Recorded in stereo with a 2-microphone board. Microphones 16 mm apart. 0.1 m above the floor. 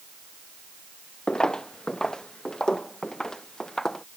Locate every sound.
1.3 s footsteps: 70° left (ahead or behind); by 4.0 s 40° left (ahead or behind)